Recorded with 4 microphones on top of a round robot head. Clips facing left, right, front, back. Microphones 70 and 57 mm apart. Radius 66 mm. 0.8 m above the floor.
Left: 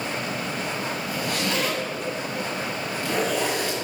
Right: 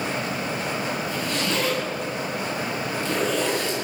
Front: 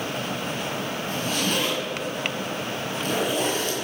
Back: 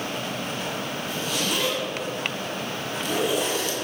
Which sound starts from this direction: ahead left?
A zipper, at 1.1 s.